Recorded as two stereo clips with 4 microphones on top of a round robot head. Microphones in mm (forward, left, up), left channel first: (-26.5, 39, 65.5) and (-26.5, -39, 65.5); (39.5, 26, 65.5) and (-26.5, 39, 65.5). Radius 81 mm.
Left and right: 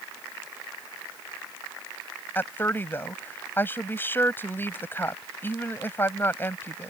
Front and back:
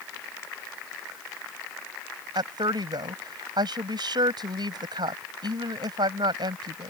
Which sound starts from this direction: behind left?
A woman speaking, at 2.4 s.